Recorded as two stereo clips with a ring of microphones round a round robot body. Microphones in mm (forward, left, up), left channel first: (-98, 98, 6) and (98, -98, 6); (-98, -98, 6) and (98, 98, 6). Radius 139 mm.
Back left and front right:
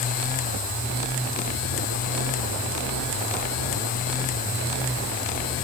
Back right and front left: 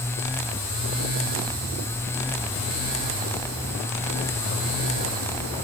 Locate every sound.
Only background noise.